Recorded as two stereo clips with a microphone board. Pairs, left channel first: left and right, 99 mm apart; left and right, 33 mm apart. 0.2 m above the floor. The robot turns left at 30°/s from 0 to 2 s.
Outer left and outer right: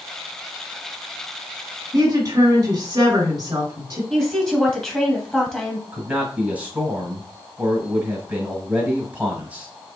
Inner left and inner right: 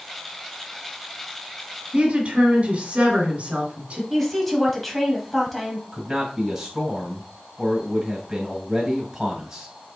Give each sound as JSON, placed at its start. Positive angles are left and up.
{"t": 1.9, "sound": "a woman speaking", "side_deg": -30, "distance_m": 1.8}
{"t": 4.1, "sound": "a woman speaking", "side_deg": 10, "distance_m": 1.2}
{"t": 5.9, "sound": "a man speaking", "side_deg": -15, "distance_m": 1.5}